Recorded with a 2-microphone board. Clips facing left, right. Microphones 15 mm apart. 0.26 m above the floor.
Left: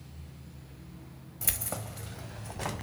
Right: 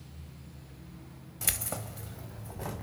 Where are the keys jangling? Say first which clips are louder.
Right 1 dB; 20° right (ahead or behind), 0.8 m; by 2.8 s 60° left (ahead or behind), 1.3 m.